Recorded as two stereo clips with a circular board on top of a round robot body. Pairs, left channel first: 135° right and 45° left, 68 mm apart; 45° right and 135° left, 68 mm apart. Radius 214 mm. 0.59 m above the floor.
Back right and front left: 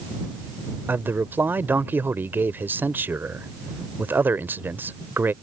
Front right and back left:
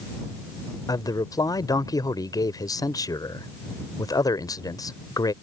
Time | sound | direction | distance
0.9 | a man speaking | 15° right | ?